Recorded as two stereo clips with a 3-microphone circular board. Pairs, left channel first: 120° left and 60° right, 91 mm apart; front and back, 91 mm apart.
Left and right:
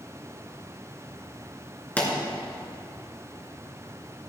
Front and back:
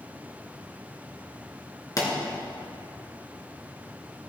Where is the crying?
No crying in this recording.